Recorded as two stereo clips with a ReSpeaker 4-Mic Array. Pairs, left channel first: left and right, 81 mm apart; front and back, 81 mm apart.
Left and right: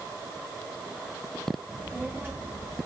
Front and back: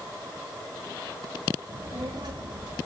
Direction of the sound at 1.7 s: 175° right.